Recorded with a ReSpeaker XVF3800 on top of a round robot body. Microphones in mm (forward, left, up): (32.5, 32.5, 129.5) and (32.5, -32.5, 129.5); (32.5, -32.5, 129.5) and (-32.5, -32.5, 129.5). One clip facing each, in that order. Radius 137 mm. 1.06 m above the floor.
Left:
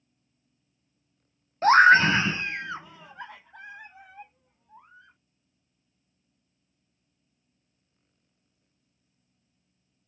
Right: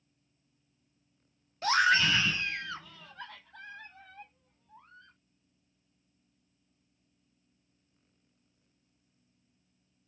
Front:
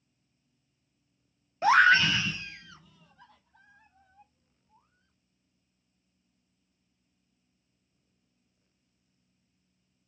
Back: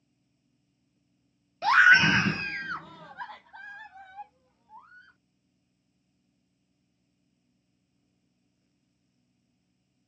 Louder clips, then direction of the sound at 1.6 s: Left 10 dB, back 2 dB; 60° left.